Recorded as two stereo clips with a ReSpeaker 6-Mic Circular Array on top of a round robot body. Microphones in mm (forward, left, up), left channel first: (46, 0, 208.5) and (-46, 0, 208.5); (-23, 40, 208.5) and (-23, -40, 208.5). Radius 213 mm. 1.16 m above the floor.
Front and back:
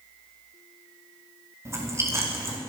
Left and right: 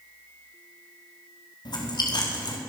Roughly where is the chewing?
Behind left.